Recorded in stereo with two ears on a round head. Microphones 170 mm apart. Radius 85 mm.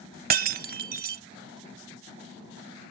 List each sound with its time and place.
0.3 s breaking glass: 50° right (ahead or behind)